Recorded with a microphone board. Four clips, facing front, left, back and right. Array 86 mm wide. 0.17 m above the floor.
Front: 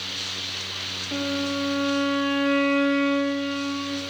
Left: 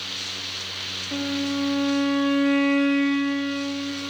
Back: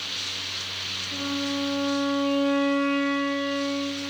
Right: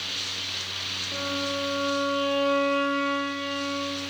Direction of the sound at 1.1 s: 45° left.